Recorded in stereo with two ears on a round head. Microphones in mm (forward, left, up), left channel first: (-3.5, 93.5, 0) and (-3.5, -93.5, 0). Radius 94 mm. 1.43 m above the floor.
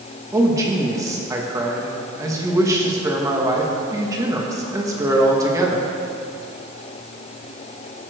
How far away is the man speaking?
About 1.9 m.